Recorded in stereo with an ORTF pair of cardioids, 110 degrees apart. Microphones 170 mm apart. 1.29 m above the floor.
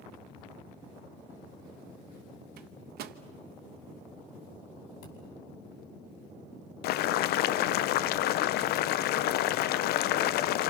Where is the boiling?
70° left, 0.5 m.